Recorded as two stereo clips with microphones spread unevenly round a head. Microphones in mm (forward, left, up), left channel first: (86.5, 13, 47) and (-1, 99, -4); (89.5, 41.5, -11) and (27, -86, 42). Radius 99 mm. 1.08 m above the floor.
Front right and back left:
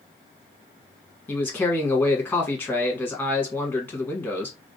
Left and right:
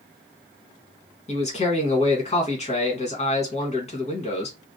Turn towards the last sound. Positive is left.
turn(degrees=40)